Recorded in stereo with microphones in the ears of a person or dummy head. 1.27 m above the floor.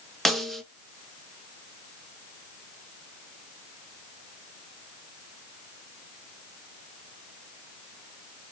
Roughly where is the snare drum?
Centre.